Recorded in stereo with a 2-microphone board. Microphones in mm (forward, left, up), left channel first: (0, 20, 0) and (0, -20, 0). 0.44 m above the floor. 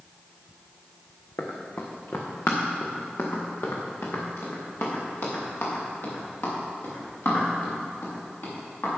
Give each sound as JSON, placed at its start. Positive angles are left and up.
{"t": 1.4, "sound": "running footsteps", "side_deg": 80, "distance_m": 2.0}